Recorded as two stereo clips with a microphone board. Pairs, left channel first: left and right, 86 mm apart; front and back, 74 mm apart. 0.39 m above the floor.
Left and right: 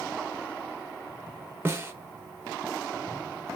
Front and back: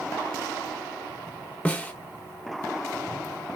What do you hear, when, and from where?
1.6 s a snare drum: 55° right, 0.7 m